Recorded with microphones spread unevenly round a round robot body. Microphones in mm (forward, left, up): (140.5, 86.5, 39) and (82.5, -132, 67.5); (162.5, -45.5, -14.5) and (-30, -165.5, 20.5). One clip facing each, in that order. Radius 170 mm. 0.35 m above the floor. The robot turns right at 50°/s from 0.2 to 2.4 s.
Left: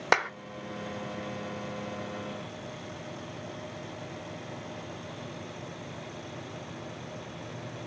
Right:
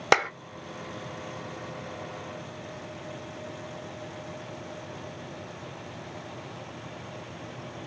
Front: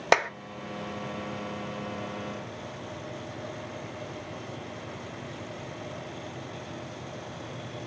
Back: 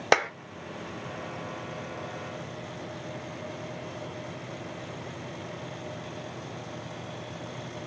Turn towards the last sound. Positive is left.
turn(degrees=50)